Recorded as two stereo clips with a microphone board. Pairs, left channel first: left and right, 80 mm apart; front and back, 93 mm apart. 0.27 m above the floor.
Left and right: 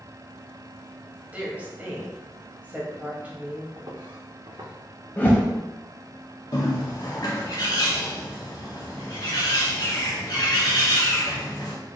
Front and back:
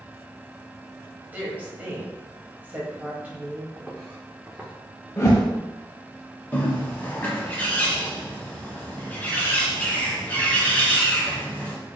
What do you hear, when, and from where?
1.3 s a woman speaking: 135° right, 1.0 m
3.8 s footsteps: 105° right, 1.1 m
5.2 s a whoosh: 40° left, 0.7 m
6.5 s a bird: 70° left, 0.7 m